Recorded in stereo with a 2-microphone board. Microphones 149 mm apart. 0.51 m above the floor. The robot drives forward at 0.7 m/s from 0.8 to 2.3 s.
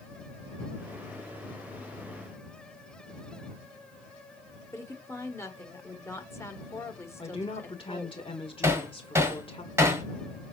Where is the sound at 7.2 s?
35° left (ahead or behind), 1.5 m.